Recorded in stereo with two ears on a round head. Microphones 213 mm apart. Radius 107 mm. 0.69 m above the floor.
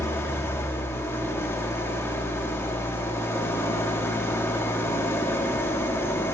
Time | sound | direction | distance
0.0 | an engine running | 10° left (ahead or behind) | 0.7 m